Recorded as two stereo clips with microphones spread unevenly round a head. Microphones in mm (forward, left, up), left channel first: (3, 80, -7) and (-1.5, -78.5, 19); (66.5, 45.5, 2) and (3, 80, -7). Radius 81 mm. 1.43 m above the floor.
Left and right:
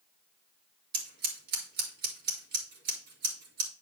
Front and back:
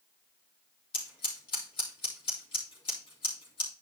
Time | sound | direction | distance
0.9 | scissors | 55° right | 3 m